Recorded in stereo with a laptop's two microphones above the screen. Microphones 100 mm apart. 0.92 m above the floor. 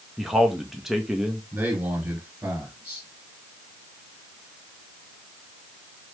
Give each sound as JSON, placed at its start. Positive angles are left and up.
{"t": 0.2, "sound": "a man speaking", "side_deg": -5, "distance_m": 0.7}
{"t": 1.5, "sound": "a man speaking", "side_deg": -15, "distance_m": 2.0}